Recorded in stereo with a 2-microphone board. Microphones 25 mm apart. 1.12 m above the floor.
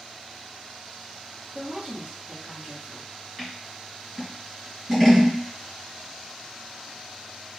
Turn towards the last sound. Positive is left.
turn(degrees=0)  # may be behind; listen again after turning